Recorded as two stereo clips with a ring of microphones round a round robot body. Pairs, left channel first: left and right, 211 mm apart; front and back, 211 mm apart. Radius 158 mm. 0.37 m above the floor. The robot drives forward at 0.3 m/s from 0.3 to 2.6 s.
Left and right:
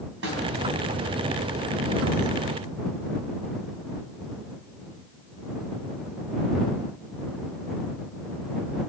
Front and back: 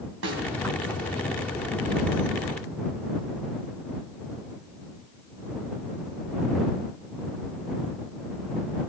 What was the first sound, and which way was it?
A snare drum, 140° right.